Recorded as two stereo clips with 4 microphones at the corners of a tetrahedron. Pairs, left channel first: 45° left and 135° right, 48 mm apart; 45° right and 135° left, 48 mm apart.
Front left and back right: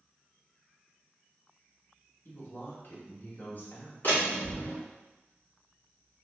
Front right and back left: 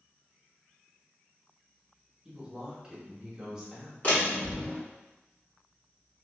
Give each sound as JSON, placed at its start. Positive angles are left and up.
{"t": 2.2, "sound": "a woman speaking", "azimuth_deg": 60, "distance_m": 1.1}
{"t": 4.0, "sound": "a door slam", "azimuth_deg": 10, "distance_m": 1.8}